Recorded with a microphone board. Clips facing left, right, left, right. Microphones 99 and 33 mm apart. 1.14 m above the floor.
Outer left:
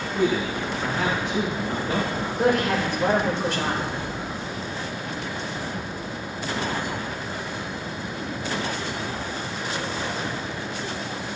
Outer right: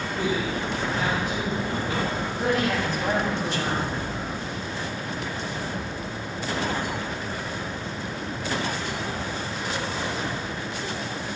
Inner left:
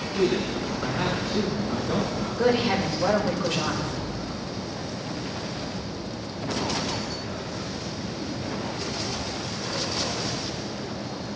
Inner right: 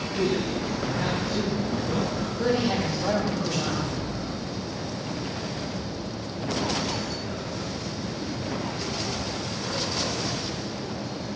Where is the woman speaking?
85° left, 5 m.